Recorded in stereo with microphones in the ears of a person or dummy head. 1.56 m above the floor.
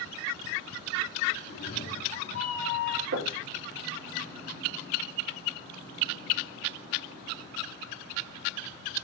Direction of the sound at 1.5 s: 35° left (ahead or behind).